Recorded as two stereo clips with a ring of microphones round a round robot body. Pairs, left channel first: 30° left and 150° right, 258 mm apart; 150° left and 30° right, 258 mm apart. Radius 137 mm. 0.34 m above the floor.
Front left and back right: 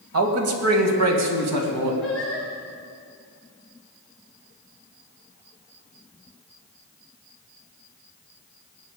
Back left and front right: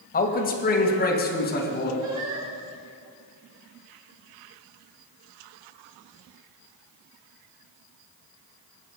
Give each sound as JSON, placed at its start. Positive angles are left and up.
{"t": 0.1, "sound": "a man speaking", "azimuth_deg": -160, "distance_m": 1.8}
{"t": 2.0, "sound": "singing", "azimuth_deg": -55, "distance_m": 5.5}